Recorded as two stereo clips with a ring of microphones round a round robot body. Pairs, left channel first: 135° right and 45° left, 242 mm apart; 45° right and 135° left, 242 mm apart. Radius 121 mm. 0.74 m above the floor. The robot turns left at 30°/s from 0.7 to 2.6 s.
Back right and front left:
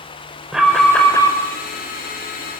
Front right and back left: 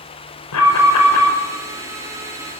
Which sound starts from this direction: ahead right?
An alarm, at 0.5 s.